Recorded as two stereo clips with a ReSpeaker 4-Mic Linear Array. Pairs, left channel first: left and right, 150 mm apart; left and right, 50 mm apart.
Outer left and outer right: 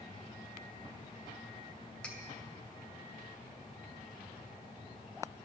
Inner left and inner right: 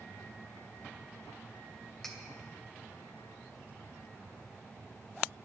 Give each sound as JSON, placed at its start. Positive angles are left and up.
{"t": 2.0, "sound": "cutlery clinking", "side_deg": 10, "distance_m": 2.5}